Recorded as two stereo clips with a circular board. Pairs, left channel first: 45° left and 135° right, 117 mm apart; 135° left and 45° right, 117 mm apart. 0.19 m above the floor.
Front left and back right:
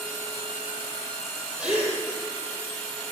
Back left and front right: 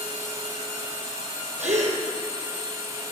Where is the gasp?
55° right, 3.5 m.